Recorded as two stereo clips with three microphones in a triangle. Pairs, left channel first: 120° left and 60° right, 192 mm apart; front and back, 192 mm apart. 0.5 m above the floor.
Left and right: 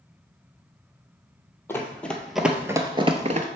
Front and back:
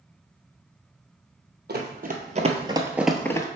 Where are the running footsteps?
165° right, 0.9 m; by 3.5 s 55° right, 0.5 m.